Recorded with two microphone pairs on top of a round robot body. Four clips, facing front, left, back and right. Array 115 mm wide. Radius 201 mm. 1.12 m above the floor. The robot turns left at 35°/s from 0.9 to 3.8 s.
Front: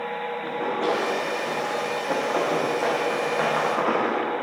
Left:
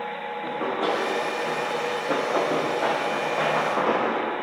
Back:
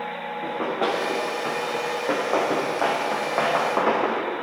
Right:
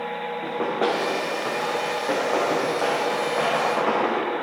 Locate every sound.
0.4 s running footsteps: 140° right, 5 m; by 4.2 s 170° left, 3.5 m